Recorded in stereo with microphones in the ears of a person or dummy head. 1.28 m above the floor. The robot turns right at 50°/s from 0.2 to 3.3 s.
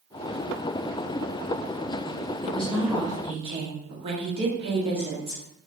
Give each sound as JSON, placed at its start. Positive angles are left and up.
{"t": 2.4, "sound": "a woman speaking", "azimuth_deg": 165, "distance_m": 0.8}